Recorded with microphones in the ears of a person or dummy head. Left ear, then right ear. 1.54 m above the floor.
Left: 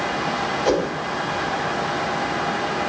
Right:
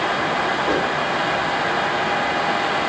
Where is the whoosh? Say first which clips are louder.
Right 1 dB; 80° left, 5 m.